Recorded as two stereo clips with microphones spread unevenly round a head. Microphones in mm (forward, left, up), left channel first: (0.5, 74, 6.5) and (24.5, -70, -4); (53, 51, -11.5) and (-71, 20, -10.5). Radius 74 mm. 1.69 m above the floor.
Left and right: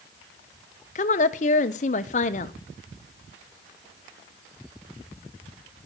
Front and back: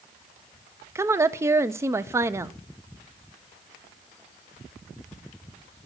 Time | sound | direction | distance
0.9 | a woman speaking | 130° left | 0.6 m